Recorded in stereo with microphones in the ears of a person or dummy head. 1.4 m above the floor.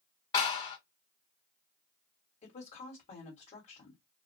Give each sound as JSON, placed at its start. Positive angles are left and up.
{"t": 0.3, "sound": "a clap", "side_deg": 30, "distance_m": 1.8}
{"t": 2.4, "sound": "a woman speaking", "side_deg": 40, "distance_m": 1.6}